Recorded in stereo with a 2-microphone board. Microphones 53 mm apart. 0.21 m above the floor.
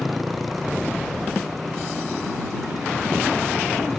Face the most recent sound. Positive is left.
turn(degrees=5)  # may be behind; listen again after turning